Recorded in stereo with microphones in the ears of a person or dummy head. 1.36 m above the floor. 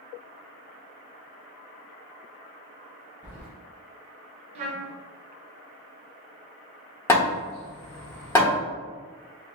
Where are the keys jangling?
10° right (ahead or behind), 0.8 m.